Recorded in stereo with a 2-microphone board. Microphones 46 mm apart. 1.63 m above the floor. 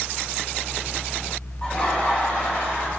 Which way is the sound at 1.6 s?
30° left (ahead or behind).